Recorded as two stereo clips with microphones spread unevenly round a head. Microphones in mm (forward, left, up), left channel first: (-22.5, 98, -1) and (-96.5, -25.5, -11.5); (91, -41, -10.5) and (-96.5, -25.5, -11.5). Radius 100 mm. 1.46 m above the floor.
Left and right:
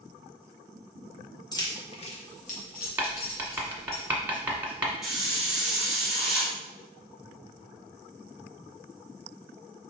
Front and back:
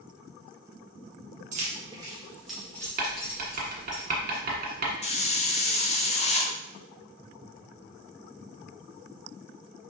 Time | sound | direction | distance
1.5 | keys jangling | 120° left | 1.2 m
3.0 | writing | 160° left | 1.3 m
5.0 | a hiss | 30° right | 0.7 m